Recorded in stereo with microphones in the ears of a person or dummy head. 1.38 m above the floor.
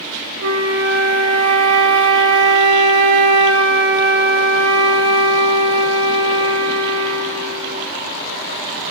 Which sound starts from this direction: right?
A flute, at 0.4 s.